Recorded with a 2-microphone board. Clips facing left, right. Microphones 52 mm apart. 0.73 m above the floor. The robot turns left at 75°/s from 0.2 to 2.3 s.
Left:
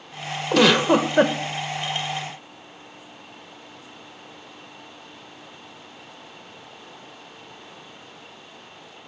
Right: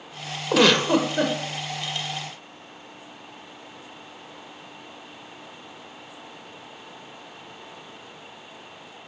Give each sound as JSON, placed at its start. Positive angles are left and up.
{"t": 0.5, "sound": "a giggle", "azimuth_deg": -175, "distance_m": 0.7}